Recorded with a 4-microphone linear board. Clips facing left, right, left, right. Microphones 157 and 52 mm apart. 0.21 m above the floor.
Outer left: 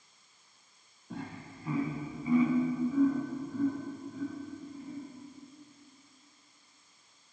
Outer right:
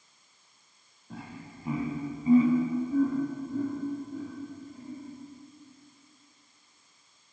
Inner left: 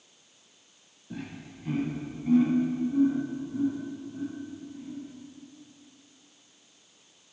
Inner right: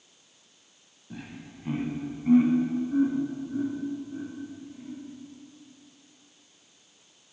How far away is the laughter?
About 1.1 m.